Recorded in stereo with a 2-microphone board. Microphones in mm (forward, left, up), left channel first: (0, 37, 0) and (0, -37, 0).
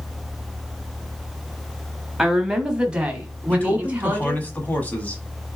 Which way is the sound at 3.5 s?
20° left (ahead or behind).